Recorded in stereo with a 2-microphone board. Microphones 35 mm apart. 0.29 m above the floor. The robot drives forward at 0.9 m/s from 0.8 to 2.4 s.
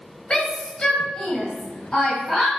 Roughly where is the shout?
Left.